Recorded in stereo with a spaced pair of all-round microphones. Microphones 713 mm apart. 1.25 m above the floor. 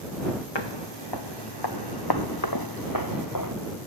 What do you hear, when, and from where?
0.6 s footsteps: 35° left (ahead or behind); by 3.5 s 25° left (ahead or behind)